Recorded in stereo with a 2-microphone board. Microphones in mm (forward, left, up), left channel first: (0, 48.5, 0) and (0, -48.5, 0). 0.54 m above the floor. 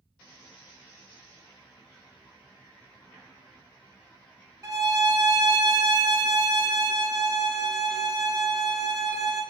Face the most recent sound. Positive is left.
turn(degrees=-35)  # may be behind; listen again after turning